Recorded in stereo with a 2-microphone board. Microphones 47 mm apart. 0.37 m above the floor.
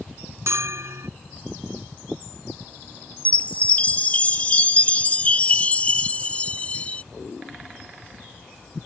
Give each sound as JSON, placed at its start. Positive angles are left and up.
{"t": 0.5, "sound": "a bell", "side_deg": -80}
{"t": 3.2, "sound": "a chime", "side_deg": 30}